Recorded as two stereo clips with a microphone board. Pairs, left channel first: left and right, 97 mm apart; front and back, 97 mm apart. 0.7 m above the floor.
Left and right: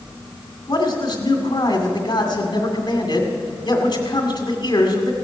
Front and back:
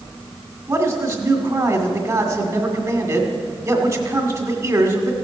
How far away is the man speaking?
About 2 m.